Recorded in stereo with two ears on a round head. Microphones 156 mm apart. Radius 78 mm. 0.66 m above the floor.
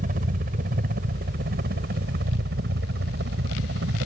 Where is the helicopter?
50° right (ahead or behind); by 4.1 s 65° right (ahead or behind).